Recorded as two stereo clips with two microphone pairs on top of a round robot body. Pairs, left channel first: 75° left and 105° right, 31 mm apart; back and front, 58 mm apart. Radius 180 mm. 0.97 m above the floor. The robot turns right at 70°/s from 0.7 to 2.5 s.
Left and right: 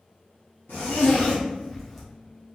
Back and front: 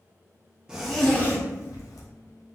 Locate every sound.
0.7 s a zipper: 75° left, 0.9 m; by 2.0 s 165° left, 0.9 m